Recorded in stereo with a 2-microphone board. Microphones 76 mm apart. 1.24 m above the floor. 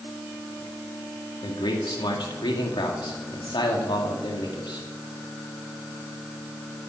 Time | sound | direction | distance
1.4 | a man speaking | 85° left | 2 m